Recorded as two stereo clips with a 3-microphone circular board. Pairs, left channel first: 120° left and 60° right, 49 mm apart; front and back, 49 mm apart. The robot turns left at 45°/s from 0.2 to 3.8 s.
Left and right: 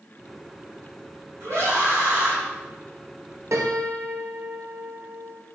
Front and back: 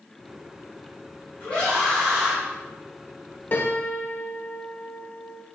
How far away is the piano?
About 1.2 m.